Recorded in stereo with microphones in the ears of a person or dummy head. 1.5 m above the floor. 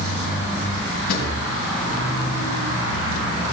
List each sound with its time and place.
1.1 s a drawer: 55° left (ahead or behind), 3.5 m